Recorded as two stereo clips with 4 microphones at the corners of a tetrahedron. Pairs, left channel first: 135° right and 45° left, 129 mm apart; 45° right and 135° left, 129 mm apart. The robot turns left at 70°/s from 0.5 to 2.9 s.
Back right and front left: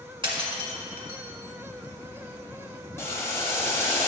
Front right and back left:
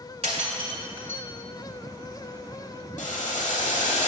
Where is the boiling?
65° right, 1.3 m.